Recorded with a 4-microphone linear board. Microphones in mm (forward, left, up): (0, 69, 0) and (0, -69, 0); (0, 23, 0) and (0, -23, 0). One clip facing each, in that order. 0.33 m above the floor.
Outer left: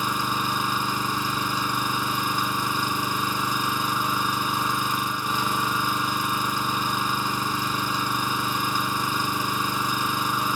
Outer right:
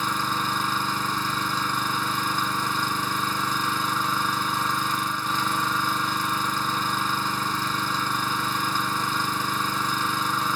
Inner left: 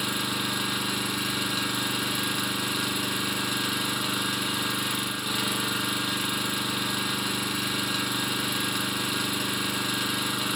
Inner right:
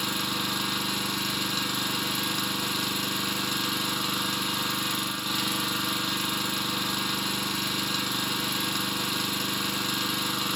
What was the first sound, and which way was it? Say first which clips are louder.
An engine running: outer left 1 dB, inner left 1 dB; 10° left (ahead or behind).